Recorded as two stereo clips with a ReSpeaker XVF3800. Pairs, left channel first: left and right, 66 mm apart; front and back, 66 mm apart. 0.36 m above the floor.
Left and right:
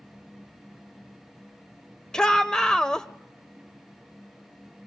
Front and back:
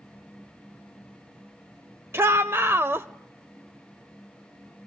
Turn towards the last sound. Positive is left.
turn(degrees=165)